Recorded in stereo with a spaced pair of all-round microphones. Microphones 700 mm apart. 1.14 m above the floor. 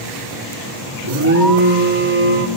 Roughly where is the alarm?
Right.